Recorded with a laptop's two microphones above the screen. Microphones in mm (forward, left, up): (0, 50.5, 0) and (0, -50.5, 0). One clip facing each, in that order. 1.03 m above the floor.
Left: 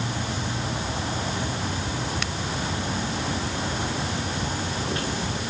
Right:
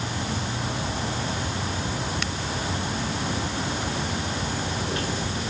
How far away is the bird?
No bird in this recording.